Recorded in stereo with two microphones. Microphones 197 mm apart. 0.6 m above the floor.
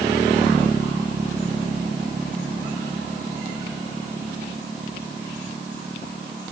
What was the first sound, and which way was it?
Only background noise.